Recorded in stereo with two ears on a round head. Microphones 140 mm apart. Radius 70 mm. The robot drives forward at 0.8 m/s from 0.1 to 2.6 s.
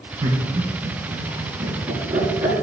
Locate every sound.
0.2 s laughter: 25° right (ahead or behind), 4 m; by 2.6 s 15° right (ahead or behind), 6 m